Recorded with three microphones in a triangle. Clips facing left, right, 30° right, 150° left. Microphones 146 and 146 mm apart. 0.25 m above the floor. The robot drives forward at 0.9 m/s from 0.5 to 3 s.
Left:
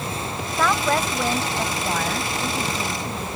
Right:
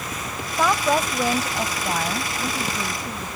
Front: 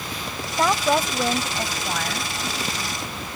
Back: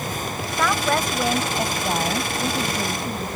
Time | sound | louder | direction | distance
0.6 | a woman speaking | right 1 dB, front 2 dB | 25° right | ?